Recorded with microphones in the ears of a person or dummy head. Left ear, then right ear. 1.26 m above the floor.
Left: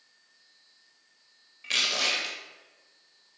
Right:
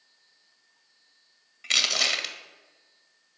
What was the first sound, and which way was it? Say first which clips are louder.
Crushing: right 3 dB; 25° right (ahead or behind).